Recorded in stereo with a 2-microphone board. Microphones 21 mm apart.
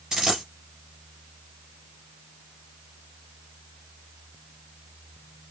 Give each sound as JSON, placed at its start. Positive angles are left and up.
{"t": 0.1, "sound": "a dropped coin", "side_deg": -30, "distance_m": 3.0}